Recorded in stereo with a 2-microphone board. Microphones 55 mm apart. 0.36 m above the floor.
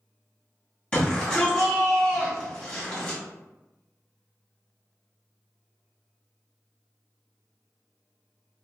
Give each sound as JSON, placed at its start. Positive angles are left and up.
{"t": 0.9, "sound": "a shout", "side_deg": 20, "distance_m": 1.7}